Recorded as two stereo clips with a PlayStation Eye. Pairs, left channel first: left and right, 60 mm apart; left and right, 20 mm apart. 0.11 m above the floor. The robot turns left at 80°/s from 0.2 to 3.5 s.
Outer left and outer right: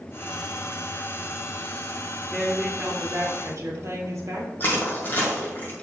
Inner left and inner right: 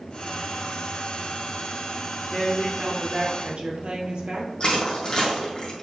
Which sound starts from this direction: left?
Crushing, at 4.6 s.